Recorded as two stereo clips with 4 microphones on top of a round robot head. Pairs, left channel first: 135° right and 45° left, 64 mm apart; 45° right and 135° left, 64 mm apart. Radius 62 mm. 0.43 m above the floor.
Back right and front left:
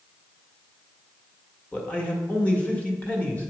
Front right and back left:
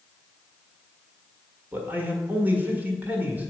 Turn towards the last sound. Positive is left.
turn(degrees=175)